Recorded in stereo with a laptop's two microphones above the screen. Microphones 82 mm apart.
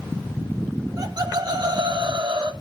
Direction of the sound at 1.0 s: 45° right (ahead or behind).